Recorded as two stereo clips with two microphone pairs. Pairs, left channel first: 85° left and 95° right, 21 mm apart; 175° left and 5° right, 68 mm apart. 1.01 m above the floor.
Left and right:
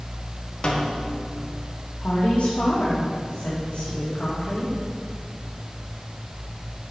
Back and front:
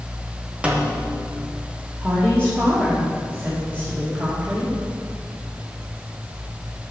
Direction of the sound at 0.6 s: 60° left.